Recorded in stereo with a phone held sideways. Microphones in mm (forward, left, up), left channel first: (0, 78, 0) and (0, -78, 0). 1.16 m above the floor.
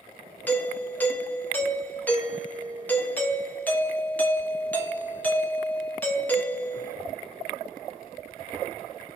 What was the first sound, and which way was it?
A doorbell, 10° left (ahead or behind).